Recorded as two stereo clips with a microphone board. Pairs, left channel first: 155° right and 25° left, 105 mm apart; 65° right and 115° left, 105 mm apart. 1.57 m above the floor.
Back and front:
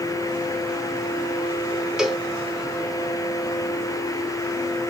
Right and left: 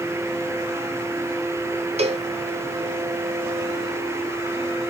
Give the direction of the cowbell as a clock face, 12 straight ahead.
8 o'clock.